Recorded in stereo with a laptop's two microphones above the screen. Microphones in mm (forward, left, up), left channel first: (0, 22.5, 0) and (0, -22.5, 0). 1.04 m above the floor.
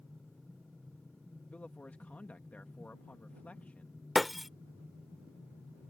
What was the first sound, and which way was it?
A man speaking, 40° left (ahead or behind).